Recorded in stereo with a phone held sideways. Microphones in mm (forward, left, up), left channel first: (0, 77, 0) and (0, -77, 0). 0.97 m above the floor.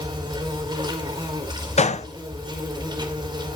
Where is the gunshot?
45° left (ahead or behind), 0.6 m.